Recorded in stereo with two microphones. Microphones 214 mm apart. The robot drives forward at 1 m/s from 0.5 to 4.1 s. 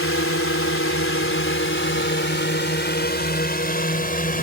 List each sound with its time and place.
0.0 s a drone: 80° left; by 4.4 s 45° left (ahead or behind)